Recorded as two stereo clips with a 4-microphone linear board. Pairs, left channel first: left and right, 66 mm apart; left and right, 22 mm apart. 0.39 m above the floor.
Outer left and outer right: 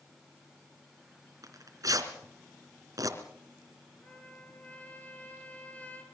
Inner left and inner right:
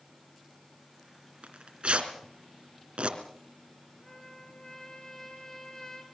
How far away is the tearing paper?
About 3 m.